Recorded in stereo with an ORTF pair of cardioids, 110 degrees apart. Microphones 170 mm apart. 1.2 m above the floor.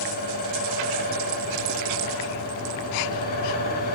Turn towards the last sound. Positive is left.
turn(degrees=70)